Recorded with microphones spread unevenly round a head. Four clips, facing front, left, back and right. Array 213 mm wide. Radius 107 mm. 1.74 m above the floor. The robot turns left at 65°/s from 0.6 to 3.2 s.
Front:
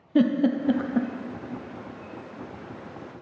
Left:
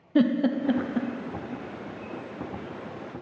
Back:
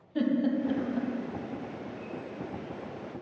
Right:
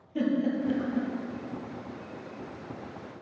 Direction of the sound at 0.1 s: 40° left.